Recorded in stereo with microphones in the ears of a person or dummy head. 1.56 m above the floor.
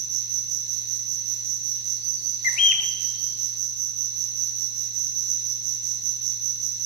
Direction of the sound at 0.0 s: 85° right.